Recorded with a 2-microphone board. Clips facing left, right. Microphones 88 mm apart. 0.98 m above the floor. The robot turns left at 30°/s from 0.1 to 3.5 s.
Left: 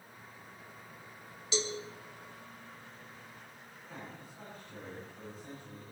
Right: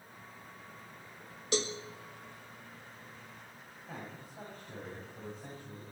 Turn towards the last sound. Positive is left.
turn(degrees=-60)  # may be behind; listen again after turning